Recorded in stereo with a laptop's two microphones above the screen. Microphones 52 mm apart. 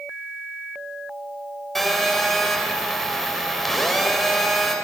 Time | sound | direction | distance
1.8 | a phone buzzing | 5° left (ahead or behind) | 4 m